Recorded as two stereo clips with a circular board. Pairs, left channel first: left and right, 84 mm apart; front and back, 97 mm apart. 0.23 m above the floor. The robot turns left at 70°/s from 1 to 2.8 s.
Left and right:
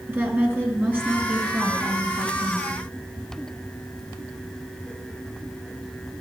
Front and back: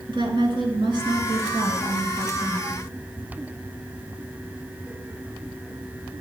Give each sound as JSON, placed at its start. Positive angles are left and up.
{"t": 0.1, "sound": "a woman speaking", "azimuth_deg": -155, "distance_m": 3.5}